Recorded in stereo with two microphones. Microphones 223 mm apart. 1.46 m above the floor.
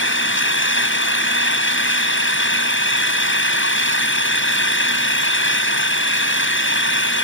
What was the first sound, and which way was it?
An engine running, 60° left (ahead or behind).